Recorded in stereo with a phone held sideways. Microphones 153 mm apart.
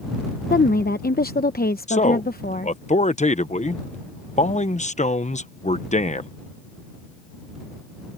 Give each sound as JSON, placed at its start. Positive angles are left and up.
{"t": 0.5, "sound": "a woman speaking", "side_deg": 80}
{"t": 1.9, "sound": "a man speaking", "side_deg": 50}